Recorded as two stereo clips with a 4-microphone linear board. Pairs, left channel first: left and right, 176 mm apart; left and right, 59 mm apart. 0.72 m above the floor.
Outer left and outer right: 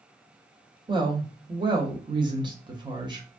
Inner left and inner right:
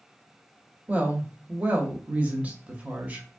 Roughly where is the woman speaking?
Right.